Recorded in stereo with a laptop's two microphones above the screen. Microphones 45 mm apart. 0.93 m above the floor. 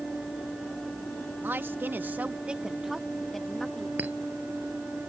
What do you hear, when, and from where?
1.4 s a woman speaking: 50° right (ahead or behind); by 3.9 s 10° left (ahead or behind)
4.0 s a clink: 35° right (ahead or behind)